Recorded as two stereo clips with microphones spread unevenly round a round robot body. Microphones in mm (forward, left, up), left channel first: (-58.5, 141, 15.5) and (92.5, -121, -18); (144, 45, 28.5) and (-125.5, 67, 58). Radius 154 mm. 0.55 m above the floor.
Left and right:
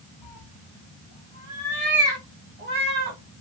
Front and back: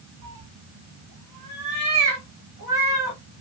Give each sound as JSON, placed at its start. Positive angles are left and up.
{"t": 0.2, "sound": "a cat meowing", "azimuth_deg": 155, "distance_m": 1.2}